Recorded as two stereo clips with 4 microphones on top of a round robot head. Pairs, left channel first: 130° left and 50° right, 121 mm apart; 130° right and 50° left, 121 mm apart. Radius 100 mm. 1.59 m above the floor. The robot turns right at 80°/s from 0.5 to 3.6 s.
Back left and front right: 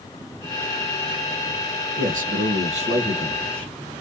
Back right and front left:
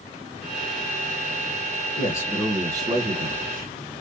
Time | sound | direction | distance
2.0 | a man speaking | 80° right | 1.1 m